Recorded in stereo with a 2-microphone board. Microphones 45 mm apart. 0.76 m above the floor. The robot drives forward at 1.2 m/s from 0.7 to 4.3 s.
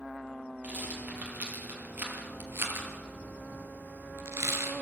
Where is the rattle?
30° right (ahead or behind), 5 m; by 4.7 s 80° right, 2.5 m.